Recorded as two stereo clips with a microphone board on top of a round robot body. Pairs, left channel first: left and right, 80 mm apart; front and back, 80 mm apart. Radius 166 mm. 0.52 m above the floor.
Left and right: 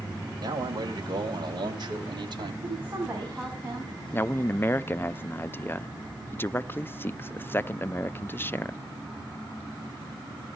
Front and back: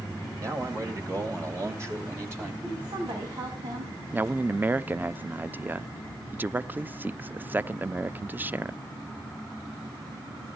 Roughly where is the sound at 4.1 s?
Behind left.